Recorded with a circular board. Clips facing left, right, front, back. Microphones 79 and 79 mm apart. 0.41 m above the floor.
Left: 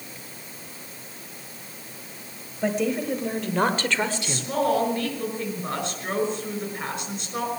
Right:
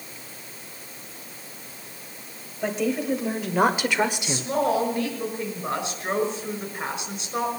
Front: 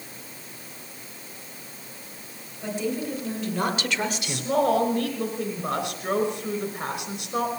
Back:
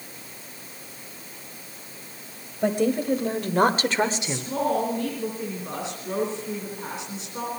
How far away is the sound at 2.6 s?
About 2 m.